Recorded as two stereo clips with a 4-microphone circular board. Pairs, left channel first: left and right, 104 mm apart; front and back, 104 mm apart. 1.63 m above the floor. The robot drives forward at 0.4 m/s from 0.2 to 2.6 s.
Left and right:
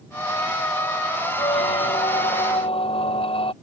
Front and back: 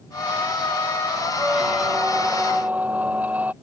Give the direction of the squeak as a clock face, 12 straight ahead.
9 o'clock.